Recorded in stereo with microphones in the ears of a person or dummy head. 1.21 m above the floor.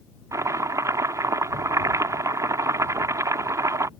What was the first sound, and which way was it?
Chopping, 20° right (ahead or behind).